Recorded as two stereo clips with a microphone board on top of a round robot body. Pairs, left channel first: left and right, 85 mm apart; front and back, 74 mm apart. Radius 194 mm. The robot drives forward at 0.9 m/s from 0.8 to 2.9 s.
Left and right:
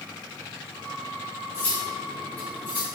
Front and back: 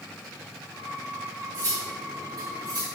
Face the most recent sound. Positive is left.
turn(degrees=155)